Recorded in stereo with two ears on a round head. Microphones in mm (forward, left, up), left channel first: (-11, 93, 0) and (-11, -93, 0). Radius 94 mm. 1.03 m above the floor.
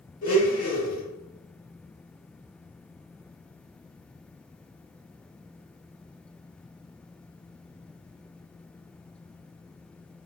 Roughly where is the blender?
Left.